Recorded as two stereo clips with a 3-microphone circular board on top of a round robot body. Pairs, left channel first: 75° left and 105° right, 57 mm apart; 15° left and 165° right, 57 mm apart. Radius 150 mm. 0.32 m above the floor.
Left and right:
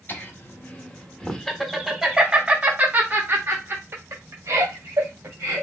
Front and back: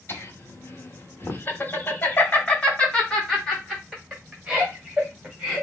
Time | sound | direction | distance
0.1 | laughter | 35° left | 1.5 m